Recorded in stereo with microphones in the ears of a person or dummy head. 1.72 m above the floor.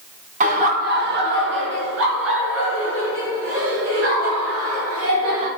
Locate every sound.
0.4 s laughter: 35° right (ahead or behind), 1.1 m; by 5.5 s 80° right, 3.5 m